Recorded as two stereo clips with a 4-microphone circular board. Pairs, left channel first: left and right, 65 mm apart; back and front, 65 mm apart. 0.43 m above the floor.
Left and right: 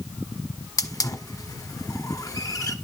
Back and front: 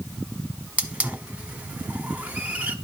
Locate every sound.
0.8 s a hiss: 65° left, 1.2 m